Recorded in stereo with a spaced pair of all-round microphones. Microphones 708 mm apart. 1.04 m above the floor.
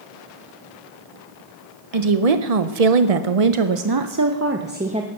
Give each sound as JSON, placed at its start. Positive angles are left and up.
{"t": 1.9, "sound": "a woman speaking", "side_deg": -55, "distance_m": 1.1}